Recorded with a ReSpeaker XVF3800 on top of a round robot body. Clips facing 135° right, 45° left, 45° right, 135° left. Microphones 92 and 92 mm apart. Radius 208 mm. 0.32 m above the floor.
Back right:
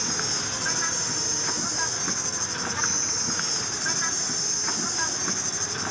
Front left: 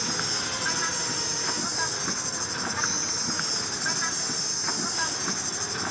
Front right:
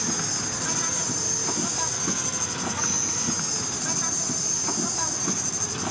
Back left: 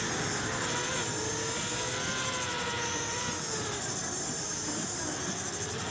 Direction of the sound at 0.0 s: 40° right.